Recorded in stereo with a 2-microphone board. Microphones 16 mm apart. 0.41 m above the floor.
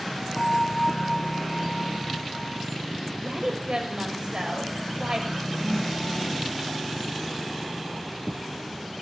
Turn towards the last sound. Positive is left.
turn(degrees=-55)  # may be behind; listen again after turning